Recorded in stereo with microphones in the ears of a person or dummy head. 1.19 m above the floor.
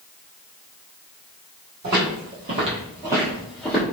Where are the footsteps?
50° right (ahead or behind), 1.8 m; by 3.8 s 10° left (ahead or behind), 1.4 m.